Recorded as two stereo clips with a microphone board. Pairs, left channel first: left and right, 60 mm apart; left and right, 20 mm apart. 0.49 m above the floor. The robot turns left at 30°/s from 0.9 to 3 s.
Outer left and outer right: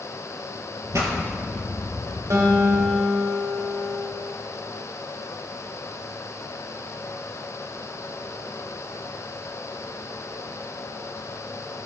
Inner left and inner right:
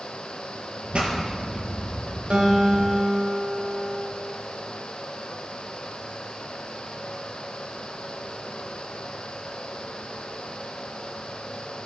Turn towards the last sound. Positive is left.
turn(degrees=-40)  # may be behind; listen again after turning